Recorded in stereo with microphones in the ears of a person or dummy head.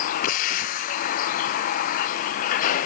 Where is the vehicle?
50° left (ahead or behind).